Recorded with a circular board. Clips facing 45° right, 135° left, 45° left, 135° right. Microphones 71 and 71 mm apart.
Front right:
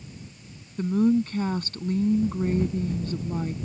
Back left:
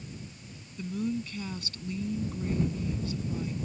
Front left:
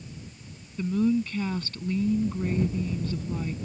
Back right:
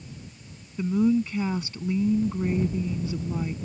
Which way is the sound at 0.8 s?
65° right.